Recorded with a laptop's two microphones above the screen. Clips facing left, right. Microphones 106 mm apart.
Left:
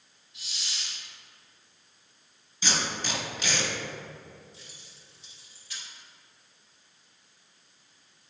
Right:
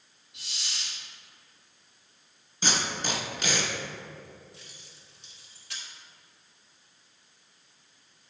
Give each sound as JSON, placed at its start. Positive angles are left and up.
{"t": 0.3, "sound": "a hiss", "side_deg": -70, "distance_m": 1.7}
{"t": 2.6, "sound": "tape being pulled", "side_deg": -45, "distance_m": 1.8}
{"t": 4.5, "sound": "keys jangling", "side_deg": -60, "distance_m": 1.4}